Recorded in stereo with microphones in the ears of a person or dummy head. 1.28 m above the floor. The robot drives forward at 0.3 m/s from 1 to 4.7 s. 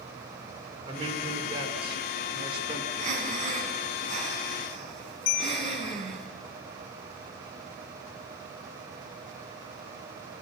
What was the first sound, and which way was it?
A man speaking, 30° right (ahead or behind).